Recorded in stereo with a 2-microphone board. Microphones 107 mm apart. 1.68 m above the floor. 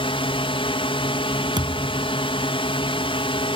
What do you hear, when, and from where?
0.0 s a drone: 60° left (ahead or behind)
1.6 s a thud: 45° right (ahead or behind)